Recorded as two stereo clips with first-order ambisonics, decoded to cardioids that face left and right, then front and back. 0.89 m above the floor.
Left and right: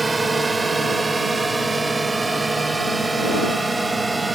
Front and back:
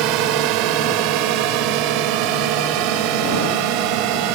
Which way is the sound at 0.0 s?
170° right.